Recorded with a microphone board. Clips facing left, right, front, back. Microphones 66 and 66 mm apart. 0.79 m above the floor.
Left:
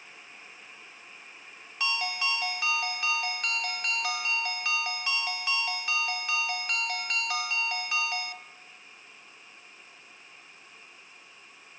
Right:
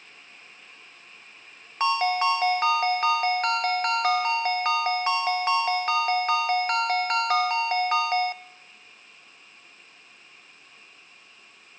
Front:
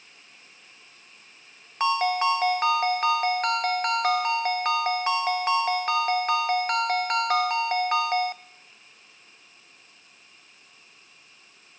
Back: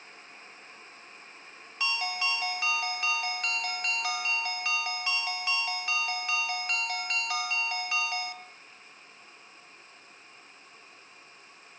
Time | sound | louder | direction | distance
1.8 | a ringtone | right 9 dB, front 10 dB | 45° right | 0.6 m